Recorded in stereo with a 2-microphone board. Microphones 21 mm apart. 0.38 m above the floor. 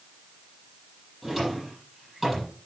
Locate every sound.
1.2 s a drawer: 10° right (ahead or behind), 6.5 m